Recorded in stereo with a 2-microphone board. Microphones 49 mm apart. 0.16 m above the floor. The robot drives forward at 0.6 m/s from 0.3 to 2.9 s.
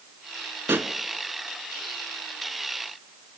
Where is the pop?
50° right (ahead or behind), 1.2 m.